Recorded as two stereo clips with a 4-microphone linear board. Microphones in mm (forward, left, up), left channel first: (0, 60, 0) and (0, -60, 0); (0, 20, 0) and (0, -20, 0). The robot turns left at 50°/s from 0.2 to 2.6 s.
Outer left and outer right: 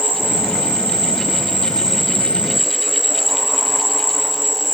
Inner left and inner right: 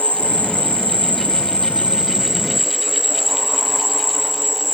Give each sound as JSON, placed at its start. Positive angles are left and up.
{"t": 0.0, "sound": "an insect", "azimuth_deg": -60}